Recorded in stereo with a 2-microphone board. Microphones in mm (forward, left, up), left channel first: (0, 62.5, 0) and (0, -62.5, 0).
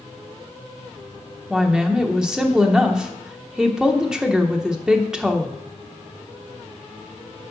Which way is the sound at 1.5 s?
5° right (ahead or behind).